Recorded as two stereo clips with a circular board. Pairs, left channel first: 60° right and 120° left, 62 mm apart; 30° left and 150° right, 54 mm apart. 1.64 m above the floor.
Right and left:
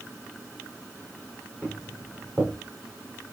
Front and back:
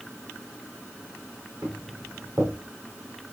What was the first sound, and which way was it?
Footsteps, 165° right.